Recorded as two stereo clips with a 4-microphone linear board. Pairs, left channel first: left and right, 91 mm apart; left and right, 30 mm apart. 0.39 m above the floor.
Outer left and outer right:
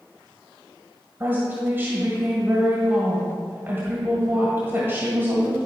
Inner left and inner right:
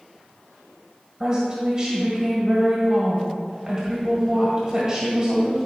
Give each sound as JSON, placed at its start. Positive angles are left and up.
{"t": 1.2, "sound": "a woman speaking", "side_deg": -25, "distance_m": 2.0}